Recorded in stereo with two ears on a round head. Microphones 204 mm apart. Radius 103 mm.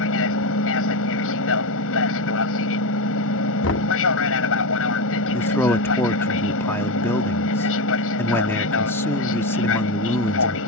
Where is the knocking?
55° left (ahead or behind).